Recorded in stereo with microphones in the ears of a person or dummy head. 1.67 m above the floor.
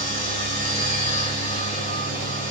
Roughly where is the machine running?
Left.